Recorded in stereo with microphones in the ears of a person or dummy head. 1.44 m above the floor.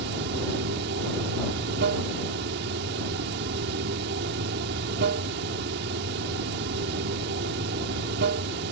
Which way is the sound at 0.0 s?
65° right (ahead or behind).